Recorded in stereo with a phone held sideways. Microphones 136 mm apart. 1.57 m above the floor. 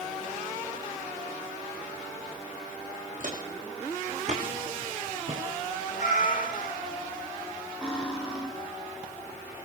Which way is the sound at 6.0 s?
60° left (ahead or behind).